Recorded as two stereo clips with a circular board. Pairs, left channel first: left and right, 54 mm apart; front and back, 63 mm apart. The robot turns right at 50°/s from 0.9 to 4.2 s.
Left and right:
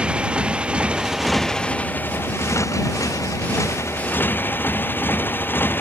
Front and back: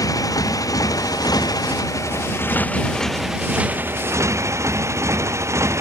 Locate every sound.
0.0 s a motorcycle: 20° right; by 5.8 s 140° left